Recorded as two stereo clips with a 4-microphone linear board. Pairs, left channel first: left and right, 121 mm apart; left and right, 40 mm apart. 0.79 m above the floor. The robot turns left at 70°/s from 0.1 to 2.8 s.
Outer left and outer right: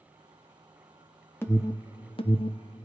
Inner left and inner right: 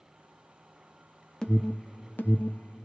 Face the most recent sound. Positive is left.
turn(degrees=40)  # may be behind; listen again after turning